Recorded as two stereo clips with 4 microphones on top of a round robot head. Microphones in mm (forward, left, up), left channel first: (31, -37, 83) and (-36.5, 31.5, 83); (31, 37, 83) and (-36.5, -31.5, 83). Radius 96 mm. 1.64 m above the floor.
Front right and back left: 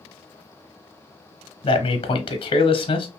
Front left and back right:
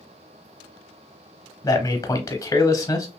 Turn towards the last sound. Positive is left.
turn(degrees=-10)